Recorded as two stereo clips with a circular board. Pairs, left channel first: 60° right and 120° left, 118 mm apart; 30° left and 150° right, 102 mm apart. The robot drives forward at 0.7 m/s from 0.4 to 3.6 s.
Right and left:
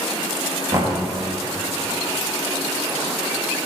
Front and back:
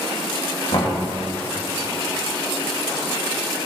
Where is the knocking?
60° left, 1.7 m; by 0.9 s 65° left, 1.6 m.